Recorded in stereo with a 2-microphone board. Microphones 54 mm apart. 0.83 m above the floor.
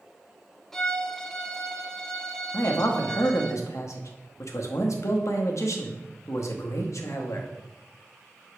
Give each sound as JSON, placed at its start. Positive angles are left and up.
{"t": 0.7, "sound": "a violin", "side_deg": 10, "distance_m": 0.7}
{"t": 2.5, "sound": "a man speaking", "side_deg": 65, "distance_m": 1.0}